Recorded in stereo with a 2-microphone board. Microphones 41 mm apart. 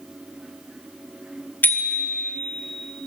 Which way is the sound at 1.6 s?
55° left (ahead or behind).